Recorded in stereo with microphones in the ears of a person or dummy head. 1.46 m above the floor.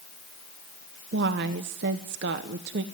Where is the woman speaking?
60° right (ahead or behind), 1.0 m.